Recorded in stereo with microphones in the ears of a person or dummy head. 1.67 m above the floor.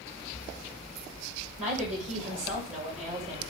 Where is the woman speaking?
45° right (ahead or behind), 2 m.